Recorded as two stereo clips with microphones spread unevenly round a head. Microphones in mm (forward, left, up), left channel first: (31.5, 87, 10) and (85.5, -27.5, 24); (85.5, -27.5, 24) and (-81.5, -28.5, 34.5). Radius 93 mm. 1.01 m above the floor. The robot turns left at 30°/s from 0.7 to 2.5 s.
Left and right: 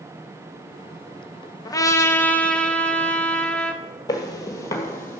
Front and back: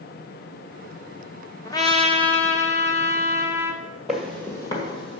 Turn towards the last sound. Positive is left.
turn(degrees=45)